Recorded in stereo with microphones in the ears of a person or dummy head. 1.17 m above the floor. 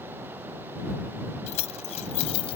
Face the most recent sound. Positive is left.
turn(degrees=30)  # may be behind; listen again after turning